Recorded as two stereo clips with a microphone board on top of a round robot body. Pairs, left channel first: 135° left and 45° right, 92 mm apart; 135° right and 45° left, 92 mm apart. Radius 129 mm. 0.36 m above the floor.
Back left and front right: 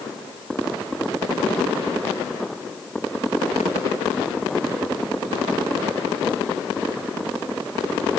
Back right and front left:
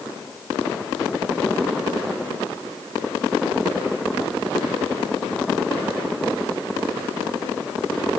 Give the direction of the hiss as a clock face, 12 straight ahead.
No hiss in this recording.